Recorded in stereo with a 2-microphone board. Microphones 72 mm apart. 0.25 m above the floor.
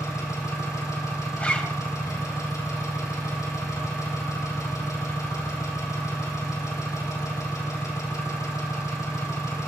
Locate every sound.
0.0 s an engine running: 50° left (ahead or behind), 4 m
1.4 s a zipper: 20° left (ahead or behind), 1.7 m